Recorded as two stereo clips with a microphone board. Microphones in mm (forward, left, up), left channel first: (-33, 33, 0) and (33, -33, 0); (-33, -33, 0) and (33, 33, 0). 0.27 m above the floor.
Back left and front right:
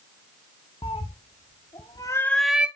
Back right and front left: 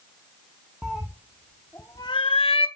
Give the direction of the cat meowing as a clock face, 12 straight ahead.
8 o'clock.